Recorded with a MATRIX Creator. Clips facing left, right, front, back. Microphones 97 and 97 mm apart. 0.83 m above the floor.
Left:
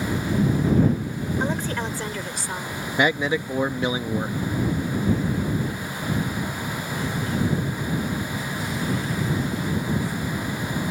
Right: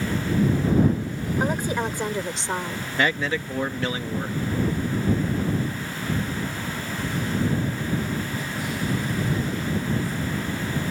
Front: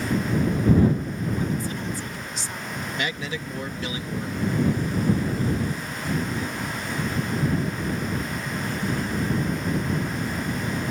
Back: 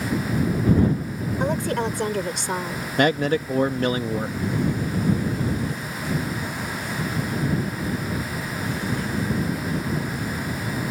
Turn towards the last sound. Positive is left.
turn(degrees=160)